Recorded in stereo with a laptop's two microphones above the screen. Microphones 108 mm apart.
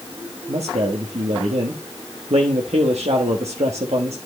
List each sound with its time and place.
0.5 s a man speaking: 80° right, 1.3 m